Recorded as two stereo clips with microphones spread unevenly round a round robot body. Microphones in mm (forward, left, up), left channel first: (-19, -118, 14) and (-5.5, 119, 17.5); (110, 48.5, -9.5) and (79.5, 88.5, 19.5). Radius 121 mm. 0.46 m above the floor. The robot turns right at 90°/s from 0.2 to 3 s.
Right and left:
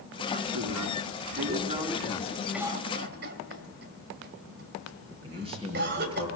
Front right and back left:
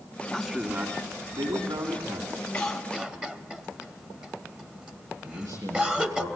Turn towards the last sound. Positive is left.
turn(degrees=155)